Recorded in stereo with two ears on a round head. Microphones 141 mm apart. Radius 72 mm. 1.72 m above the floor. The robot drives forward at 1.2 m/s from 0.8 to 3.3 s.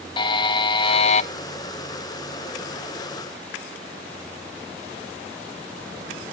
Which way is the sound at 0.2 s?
30° left (ahead or behind).